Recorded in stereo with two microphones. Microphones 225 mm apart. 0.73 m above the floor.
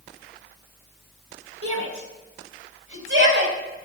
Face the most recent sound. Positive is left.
turn(degrees=-60)  # may be behind; listen again after turning